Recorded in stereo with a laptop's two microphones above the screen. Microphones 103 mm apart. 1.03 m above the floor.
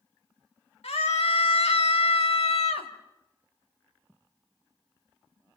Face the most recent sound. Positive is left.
turn(degrees=80)